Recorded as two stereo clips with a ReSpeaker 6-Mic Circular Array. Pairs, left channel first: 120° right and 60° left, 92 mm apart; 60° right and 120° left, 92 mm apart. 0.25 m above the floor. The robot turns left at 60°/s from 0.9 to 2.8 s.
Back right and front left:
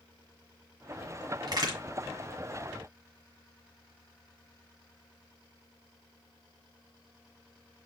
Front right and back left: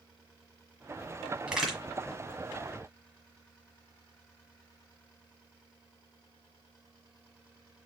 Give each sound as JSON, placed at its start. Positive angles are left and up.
{"t": 1.5, "sound": "a crack", "azimuth_deg": 45, "distance_m": 1.6}